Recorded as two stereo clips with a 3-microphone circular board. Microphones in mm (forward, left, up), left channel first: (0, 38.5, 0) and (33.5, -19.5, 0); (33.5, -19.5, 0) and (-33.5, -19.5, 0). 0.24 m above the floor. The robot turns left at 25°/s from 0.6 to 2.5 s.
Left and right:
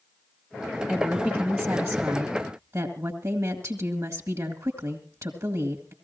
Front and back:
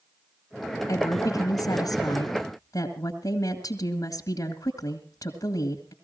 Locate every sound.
0.9 s a woman speaking: 20° left, 2 m; by 5.9 s 20° right, 2 m